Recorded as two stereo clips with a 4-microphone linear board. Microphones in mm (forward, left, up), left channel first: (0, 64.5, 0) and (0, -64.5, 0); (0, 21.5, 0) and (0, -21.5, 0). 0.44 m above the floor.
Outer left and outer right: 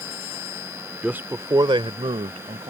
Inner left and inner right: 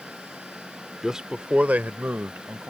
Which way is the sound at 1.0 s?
10° right (ahead or behind).